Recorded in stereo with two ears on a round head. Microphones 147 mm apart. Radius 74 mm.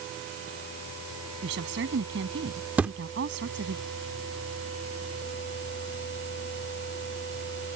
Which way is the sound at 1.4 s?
80° right.